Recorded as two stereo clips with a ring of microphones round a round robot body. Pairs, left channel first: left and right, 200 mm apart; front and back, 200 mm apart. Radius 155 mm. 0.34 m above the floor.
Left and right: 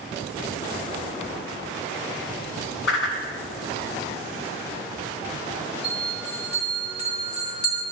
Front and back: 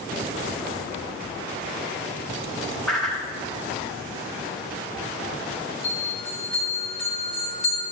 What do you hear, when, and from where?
2.9 s a whoosh: 85° left, 1.5 m
5.8 s a bell: 60° left, 2.5 m